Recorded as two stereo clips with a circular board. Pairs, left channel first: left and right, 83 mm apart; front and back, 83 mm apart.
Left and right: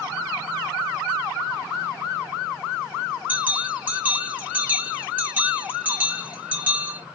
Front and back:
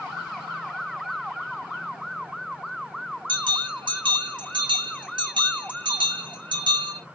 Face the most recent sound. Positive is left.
turn(degrees=-160)